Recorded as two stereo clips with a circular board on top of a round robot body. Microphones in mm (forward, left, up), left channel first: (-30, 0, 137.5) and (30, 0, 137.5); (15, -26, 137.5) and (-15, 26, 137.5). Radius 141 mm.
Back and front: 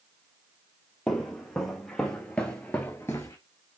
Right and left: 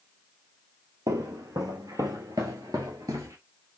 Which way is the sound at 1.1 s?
90° left.